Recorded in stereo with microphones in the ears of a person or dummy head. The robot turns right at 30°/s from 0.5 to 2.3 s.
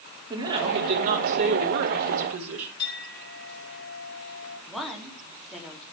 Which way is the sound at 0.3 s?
155° right.